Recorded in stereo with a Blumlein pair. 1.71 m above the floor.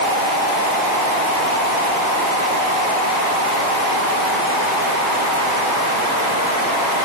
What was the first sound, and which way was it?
Only background noise.